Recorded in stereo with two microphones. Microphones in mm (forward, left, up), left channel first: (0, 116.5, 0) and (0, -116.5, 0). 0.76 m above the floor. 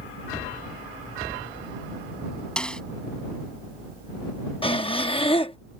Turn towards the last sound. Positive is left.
turn(degrees=25)  # may be behind; listen again after turning